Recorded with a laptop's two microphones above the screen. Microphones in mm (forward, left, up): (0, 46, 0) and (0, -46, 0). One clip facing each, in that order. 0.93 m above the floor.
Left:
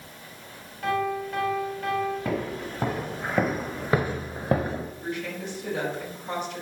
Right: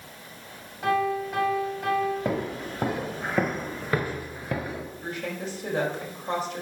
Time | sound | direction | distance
0.8 | a piano | 15° right (ahead or behind) | 5 m
2.2 | footsteps | 20° right (ahead or behind) | 1.4 m
5.0 | a woman speaking | 40° right (ahead or behind) | 5.5 m